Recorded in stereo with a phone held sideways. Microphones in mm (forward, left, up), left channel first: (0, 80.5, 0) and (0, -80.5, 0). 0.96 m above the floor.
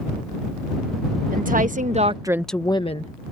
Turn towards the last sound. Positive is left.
turn(degrees=45)  # may be behind; listen again after turning